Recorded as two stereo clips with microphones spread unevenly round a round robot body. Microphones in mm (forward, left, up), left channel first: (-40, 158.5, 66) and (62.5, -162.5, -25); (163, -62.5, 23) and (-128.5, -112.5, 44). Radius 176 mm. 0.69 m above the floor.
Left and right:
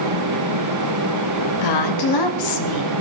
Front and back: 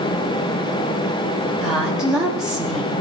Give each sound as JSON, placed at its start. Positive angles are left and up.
{"t": 1.6, "sound": "a woman speaking", "azimuth_deg": 100, "distance_m": 1.4}